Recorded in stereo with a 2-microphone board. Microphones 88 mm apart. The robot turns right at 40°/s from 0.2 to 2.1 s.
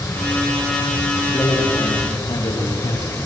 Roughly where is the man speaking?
Ahead left.